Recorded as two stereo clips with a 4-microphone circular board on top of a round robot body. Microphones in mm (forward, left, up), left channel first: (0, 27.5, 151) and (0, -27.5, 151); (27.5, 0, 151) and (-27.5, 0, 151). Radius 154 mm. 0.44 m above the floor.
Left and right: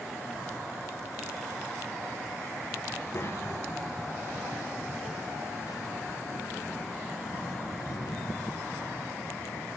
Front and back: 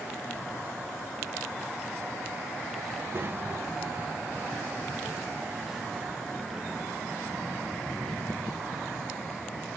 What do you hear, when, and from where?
2.9 s a child speaking: 140° left, 1.6 m; by 9.7 s 75° left, 5.5 m